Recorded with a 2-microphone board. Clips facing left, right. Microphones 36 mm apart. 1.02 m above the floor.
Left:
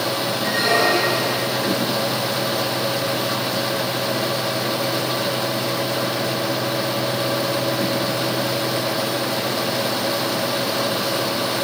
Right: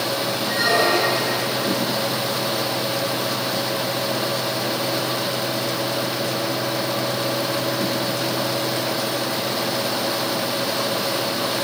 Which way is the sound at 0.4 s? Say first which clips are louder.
Left 1 dB; 65° left (ahead or behind).